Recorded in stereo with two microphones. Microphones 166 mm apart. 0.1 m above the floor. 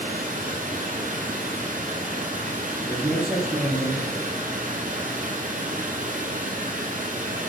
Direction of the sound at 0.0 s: 50° right (ahead or behind).